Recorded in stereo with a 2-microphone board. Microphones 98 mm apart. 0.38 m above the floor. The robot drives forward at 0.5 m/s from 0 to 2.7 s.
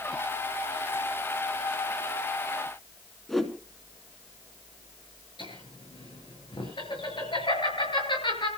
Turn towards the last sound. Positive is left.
turn(degrees=55)  # may be behind; listen again after turning